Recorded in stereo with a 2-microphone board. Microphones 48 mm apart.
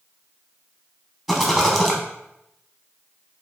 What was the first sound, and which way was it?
A rattle, 5° right (ahead or behind).